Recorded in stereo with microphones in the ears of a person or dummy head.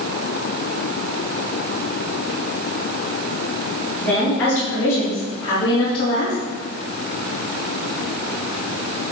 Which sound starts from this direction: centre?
A woman speaking, at 4.0 s.